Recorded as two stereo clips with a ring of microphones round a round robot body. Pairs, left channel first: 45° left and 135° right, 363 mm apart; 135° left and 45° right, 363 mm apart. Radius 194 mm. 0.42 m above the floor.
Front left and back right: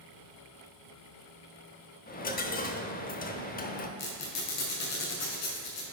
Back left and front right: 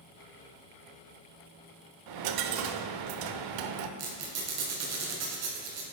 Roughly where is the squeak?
Ahead.